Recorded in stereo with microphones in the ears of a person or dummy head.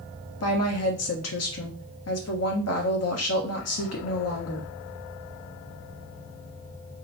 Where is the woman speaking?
65° left (ahead or behind), 1.1 m.